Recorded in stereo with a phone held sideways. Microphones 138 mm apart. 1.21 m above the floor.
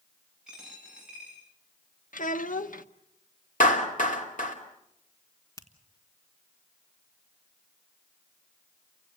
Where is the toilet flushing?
I don't hear a toilet flushing.